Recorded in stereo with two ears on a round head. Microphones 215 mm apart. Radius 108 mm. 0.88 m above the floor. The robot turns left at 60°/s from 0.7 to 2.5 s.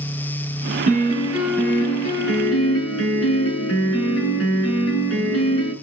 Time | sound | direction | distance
0.9 | a piano | 145° right | 8 m